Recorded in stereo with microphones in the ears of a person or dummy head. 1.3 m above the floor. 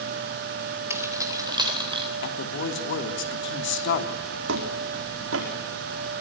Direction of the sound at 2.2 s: 65° left (ahead or behind).